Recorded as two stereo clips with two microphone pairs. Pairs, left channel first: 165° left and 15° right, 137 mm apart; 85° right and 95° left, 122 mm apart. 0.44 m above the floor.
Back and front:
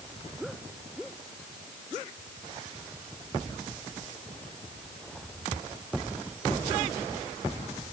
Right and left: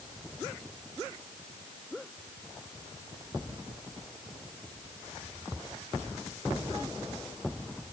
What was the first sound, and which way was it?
Only background noise.